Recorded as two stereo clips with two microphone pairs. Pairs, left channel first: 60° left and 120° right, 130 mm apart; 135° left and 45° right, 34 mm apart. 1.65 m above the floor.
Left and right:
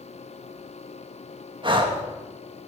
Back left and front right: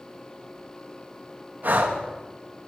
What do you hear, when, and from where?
1.6 s breathing: 70° right, 1.9 m